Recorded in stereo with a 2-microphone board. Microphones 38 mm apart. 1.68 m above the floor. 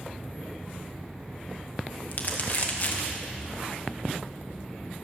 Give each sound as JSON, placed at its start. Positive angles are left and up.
{"t": 2.1, "sound": "crumpling", "side_deg": 50, "distance_m": 1.7}